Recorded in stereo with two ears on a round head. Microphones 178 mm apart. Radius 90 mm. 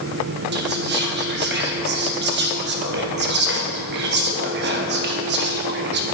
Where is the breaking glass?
I don't hear breaking glass.